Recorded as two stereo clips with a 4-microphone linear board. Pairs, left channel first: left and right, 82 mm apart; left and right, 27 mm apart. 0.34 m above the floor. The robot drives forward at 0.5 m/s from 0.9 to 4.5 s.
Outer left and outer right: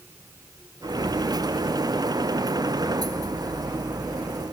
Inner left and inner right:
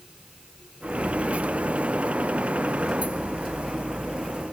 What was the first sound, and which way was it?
Only background noise.